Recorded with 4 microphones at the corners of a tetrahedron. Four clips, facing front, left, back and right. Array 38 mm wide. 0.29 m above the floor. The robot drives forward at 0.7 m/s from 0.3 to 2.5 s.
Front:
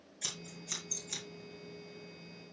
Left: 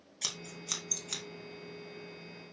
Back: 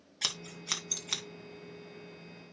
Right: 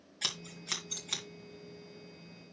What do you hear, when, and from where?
0.2 s scissors: 165° right, 2.5 m; by 1.2 s 170° right, 3 m